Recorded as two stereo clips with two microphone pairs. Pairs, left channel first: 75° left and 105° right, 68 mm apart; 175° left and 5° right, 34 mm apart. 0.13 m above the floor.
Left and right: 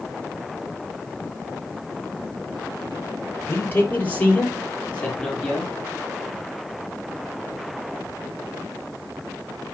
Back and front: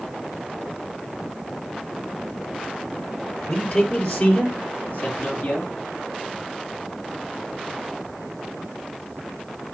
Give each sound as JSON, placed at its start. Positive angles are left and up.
{"t": 3.5, "sound": "a man speaking", "azimuth_deg": 130, "distance_m": 3.5}